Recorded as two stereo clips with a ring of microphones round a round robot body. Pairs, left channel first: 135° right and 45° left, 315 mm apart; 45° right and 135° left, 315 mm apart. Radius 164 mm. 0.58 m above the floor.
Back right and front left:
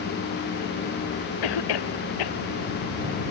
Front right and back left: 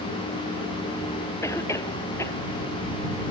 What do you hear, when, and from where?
1.4 s a cough: 125° right